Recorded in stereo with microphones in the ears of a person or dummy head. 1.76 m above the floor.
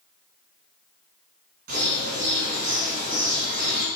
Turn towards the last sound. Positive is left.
turn(degrees=-55)  # may be behind; listen again after turning